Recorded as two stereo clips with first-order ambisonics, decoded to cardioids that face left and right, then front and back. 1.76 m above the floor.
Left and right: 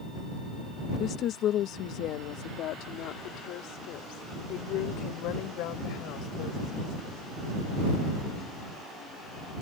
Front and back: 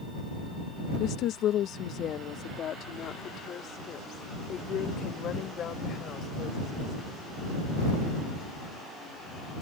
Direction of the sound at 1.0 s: 35° left.